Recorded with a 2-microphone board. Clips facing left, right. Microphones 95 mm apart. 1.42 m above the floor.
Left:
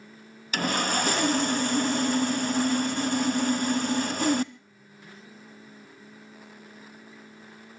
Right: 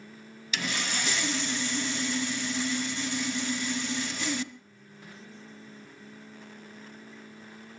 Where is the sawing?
50° left (ahead or behind), 0.6 m.